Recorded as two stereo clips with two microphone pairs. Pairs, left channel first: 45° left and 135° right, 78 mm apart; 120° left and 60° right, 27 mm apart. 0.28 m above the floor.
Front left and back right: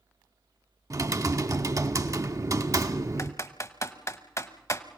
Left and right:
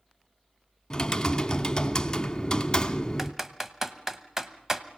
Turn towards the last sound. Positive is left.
turn(degrees=15)